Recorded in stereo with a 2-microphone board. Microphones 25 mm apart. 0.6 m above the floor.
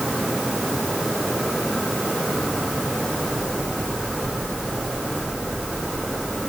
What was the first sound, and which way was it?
Only background noise.